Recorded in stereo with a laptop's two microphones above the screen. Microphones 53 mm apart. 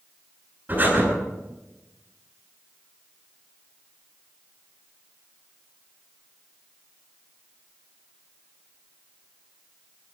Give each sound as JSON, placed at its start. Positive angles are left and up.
{"t": 0.7, "sound": "breathing", "side_deg": -35, "distance_m": 10.0}